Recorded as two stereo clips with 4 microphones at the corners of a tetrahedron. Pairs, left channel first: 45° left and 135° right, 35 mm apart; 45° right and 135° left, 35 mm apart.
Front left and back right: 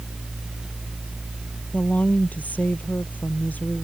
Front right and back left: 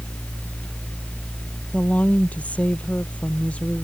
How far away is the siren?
I don't hear a siren.